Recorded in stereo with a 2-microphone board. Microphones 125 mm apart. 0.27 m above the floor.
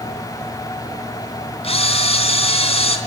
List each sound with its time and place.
1.6 s a camera shutter: 50° left (ahead or behind), 3 m